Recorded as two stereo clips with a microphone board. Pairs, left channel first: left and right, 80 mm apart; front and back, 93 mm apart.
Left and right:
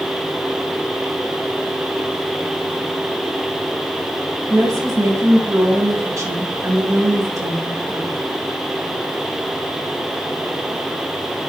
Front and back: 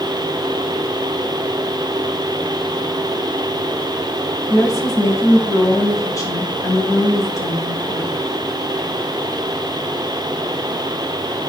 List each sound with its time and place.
4.5 s a woman speaking: 50° right, 2.5 m